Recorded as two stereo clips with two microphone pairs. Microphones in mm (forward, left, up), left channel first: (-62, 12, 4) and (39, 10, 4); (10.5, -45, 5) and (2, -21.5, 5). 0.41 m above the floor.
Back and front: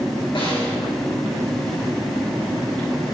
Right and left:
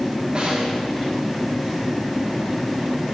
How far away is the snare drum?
About 3 m.